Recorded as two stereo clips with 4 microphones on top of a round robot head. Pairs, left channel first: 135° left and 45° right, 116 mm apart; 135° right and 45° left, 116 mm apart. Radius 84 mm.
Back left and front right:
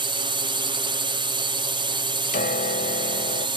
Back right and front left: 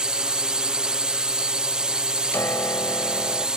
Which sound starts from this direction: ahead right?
A drone, at 0.0 s.